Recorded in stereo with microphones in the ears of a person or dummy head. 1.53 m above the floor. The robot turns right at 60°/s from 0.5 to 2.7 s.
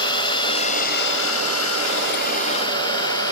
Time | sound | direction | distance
0.0 | a drone | 25° left (ahead or behind) | ?